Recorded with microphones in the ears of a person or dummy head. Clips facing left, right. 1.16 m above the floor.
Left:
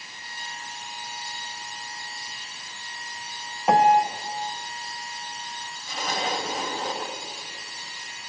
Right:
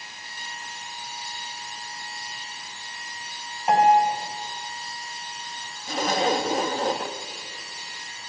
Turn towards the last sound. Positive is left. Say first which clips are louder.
# right 6 dB
turn(degrees=-40)  # may be behind; listen again after turning